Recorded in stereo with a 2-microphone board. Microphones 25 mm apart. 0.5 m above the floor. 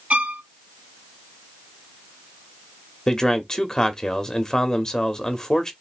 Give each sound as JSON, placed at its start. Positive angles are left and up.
{"t": 0.1, "sound": "a violin", "side_deg": -55, "distance_m": 0.5}
{"t": 3.1, "sound": "a man speaking", "side_deg": 20, "distance_m": 0.8}